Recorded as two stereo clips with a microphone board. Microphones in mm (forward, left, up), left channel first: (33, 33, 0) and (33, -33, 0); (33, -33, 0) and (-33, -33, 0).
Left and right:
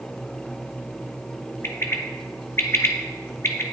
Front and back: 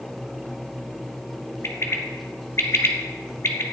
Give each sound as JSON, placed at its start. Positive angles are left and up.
{"t": 1.6, "sound": "a bird", "azimuth_deg": 40, "distance_m": 1.4}